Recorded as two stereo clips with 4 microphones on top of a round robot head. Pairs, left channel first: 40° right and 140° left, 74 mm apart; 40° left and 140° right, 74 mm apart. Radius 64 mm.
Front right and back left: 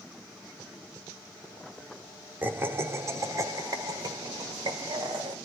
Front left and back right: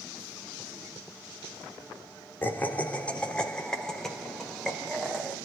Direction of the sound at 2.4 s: 90° left.